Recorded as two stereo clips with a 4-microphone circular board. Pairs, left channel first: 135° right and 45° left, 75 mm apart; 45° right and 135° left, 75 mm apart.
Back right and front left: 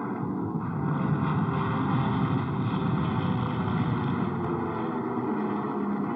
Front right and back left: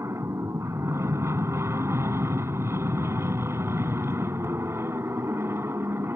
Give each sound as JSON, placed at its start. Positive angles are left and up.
{"t": 0.0, "sound": "an aircraft", "azimuth_deg": 135}